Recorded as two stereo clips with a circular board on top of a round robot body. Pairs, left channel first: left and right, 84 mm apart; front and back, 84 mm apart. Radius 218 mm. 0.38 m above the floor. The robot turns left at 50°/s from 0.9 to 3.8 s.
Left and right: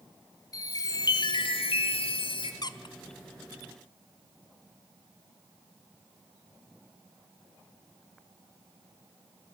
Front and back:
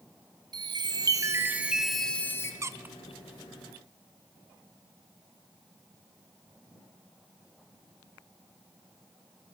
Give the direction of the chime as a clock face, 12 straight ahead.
7 o'clock.